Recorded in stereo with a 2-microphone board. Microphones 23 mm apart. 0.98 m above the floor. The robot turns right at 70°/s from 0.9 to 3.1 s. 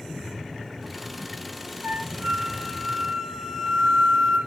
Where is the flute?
115° right, 4.5 m; by 4.4 s 25° right, 4.5 m.